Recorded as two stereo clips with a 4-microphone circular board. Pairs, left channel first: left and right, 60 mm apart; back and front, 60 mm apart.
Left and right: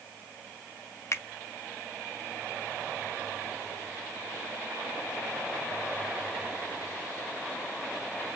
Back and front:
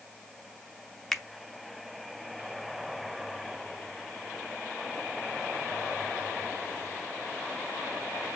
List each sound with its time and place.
1.1 s a finger snap: 95° left, 0.5 m